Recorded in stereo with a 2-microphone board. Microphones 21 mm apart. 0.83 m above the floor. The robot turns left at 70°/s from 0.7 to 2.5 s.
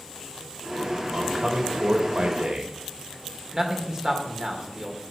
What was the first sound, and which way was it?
A man speaking, 25° right.